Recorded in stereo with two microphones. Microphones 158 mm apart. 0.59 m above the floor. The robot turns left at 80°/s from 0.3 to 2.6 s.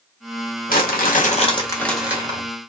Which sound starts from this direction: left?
Crumpling, at 0.7 s.